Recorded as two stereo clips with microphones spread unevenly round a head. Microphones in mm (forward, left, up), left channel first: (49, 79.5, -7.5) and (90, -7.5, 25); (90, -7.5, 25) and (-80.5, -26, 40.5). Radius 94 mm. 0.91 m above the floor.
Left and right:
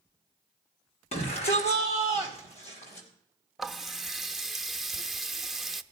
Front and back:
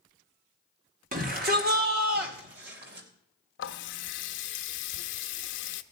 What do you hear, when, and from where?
1.1 s a shout: 140° left, 2 m; by 3.1 s 150° left, 4 m
3.6 s a running tap: 25° left, 0.8 m